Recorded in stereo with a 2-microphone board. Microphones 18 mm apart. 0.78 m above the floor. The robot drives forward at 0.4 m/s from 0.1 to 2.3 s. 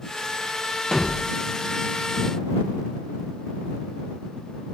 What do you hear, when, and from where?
0.9 s a thud: 70° left (ahead or behind), 1.4 m; by 1.3 s 65° left (ahead or behind), 1.5 m